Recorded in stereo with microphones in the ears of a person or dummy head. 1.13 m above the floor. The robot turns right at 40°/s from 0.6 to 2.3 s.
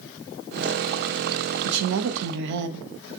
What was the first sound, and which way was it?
A woman speaking, 85° right.